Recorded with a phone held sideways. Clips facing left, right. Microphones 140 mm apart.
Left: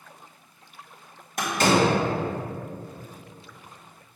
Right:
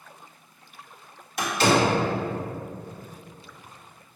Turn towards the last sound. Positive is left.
turn(degrees=50)  # may be behind; listen again after turning